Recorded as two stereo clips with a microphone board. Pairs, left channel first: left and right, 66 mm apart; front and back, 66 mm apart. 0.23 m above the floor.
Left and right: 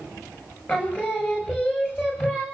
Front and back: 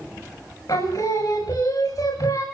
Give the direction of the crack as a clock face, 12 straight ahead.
I don't hear a crack.